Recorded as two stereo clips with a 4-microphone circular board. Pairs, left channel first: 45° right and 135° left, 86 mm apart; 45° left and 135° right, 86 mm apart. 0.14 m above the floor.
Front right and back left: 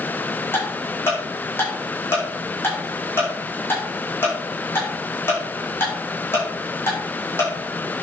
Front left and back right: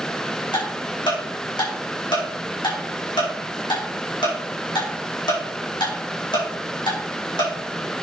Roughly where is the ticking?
Ahead.